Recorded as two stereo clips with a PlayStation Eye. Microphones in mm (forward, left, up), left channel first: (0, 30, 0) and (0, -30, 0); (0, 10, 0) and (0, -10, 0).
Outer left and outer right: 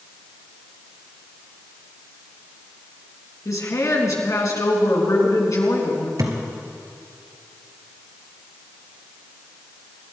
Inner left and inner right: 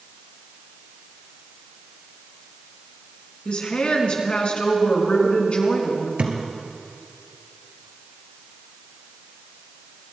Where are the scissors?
I don't hear scissors.